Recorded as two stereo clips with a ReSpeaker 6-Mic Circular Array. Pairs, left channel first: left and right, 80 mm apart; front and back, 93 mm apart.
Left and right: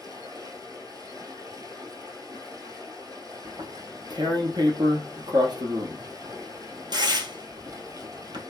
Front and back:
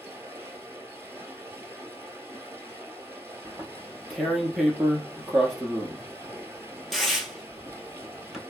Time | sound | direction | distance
0.0 | running water | 120° right | 1.0 m
3.5 | tearing paper | 90° right | 0.9 m